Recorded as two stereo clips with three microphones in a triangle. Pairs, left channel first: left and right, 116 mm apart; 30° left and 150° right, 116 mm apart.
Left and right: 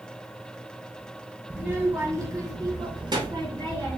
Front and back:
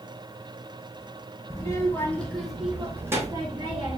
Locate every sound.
1.5 s a child speaking: 20° right, 1.0 m; by 4.0 s 125° right, 1.1 m